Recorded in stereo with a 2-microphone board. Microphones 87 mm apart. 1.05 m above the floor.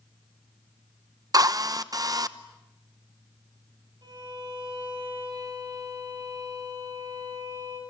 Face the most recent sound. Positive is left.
turn(degrees=-50)  # may be behind; listen again after turning